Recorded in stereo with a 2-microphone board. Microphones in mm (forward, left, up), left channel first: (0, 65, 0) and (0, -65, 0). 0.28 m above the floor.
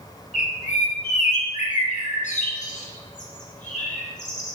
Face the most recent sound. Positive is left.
turn(degrees=70)  # may be behind; listen again after turning